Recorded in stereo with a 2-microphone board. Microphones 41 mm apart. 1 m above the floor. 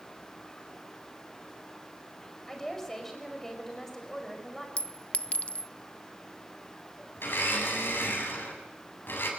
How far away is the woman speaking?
About 5.5 m.